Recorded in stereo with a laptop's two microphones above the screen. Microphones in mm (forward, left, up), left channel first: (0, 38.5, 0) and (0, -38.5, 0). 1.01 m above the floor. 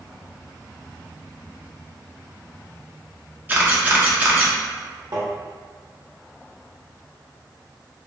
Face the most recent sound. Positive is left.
turn(degrees=-60)  # may be behind; listen again after turning